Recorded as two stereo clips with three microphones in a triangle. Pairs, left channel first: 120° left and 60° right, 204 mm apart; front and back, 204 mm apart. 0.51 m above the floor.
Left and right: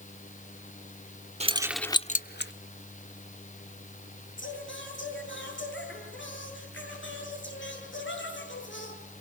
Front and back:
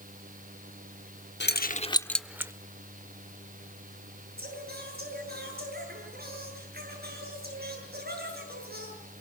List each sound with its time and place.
1.4 s keys jangling: 5° right, 0.9 m; by 2.5 s 105° left, 1.1 m
4.4 s singing: 140° left, 8 m